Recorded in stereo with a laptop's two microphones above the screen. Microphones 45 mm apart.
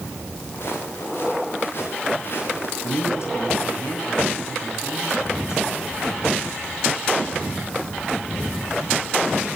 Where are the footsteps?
60° left (ahead or behind), 9.5 m; by 2.7 s 55° left (ahead or behind), 8.5 m.